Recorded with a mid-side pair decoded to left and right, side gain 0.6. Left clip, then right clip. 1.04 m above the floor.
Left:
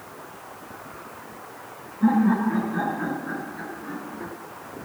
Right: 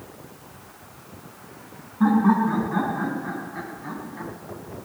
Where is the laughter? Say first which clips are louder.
Right 2 dB; 65° right, 9.5 m; by 4.3 s 80° right, 6.5 m.